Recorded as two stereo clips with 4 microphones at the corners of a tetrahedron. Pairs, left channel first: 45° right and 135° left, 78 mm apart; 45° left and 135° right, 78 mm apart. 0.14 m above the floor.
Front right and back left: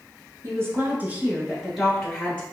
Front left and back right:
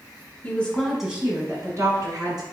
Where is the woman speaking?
105° left, 1.3 m; by 2.4 s 125° right, 1.8 m.